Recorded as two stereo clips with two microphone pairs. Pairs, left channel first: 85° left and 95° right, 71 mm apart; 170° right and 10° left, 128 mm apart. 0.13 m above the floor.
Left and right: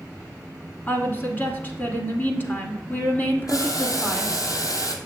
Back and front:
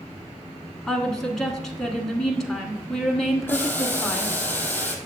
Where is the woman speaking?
105° left, 1.1 m.